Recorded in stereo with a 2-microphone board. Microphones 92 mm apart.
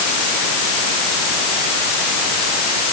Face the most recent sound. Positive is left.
No sound to turn to.